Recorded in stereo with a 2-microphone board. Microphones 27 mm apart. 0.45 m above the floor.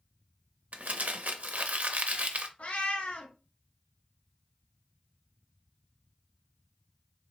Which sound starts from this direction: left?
A cat meowing, at 2.6 s.